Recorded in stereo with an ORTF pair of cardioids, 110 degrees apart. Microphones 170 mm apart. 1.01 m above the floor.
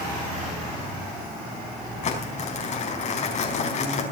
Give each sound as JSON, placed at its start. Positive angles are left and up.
{"t": 2.0, "sound": "crumpling", "azimuth_deg": 45, "distance_m": 4.5}